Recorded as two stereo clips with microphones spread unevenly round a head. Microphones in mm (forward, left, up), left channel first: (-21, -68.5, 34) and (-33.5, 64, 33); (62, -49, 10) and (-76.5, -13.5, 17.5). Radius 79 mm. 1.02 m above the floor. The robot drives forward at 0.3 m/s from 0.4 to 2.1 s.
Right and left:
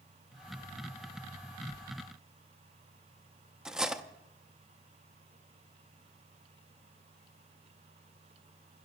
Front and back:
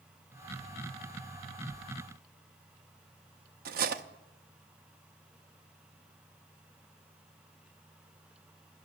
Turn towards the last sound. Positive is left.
turn(degrees=180)